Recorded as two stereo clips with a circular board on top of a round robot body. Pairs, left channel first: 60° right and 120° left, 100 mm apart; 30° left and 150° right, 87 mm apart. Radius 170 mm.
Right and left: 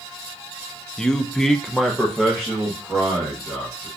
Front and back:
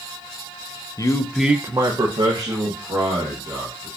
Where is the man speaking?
20° left, 0.7 m; by 3.9 s 155° right, 2.5 m.